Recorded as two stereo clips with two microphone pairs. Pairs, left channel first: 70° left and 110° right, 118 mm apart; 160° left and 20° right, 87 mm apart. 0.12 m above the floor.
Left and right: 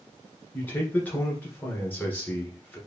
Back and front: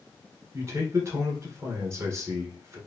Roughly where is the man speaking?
Ahead.